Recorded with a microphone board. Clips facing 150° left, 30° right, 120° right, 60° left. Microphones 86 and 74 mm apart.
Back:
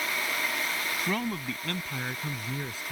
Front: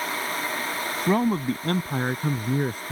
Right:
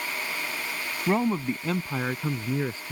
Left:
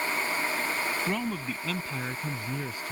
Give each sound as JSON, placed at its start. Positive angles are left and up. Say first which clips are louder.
{"t": 1.1, "sound": "a man speaking", "louder": "front 12 dB, right 6 dB", "azimuth_deg": -75}